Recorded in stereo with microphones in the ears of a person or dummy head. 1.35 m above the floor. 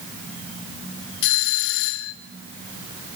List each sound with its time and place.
1.2 s a doorbell: 65° left (ahead or behind), 1.3 m